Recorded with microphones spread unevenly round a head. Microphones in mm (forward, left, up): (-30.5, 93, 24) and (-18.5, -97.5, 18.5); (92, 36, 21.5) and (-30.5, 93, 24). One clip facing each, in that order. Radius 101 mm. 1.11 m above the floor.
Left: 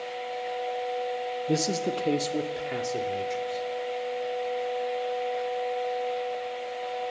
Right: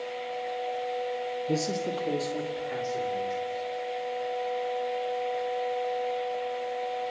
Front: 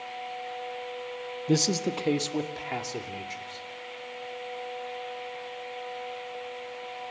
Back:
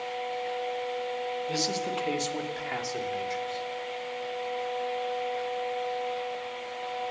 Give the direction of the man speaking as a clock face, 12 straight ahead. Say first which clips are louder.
Left 3 dB, front 9 dB; 12 o'clock.